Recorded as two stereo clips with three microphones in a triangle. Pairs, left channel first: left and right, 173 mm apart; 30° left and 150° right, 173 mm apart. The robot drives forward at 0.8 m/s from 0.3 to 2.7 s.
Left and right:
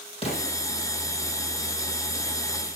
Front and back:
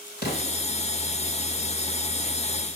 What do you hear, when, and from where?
0.2 s an explosion: 35° left, 4.5 m; by 0.5 s 40° left, 4.5 m